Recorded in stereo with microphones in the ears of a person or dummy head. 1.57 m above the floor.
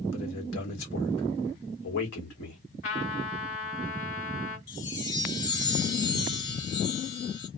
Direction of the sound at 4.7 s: 25° left (ahead or behind).